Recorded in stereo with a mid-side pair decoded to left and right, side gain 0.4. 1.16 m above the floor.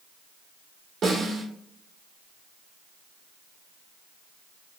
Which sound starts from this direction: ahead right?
A snare drum, at 1.0 s.